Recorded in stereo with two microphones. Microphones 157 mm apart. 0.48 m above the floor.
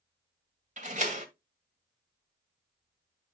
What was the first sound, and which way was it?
A door slam, 50° right (ahead or behind).